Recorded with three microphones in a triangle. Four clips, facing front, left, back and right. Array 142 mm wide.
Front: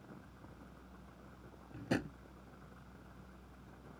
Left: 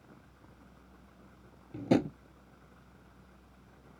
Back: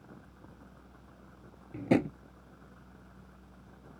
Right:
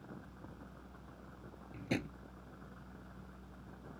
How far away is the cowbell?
No cowbell in this recording.